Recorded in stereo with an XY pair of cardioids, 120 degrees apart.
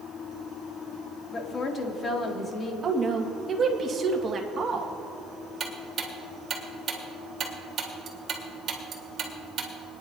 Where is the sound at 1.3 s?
40° left, 1.9 m.